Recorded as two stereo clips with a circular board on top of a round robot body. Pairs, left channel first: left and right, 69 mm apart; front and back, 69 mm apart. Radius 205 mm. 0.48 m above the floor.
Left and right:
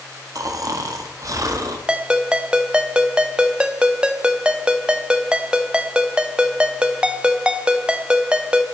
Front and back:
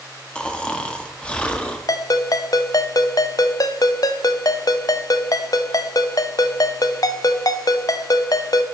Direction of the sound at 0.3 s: 70° right.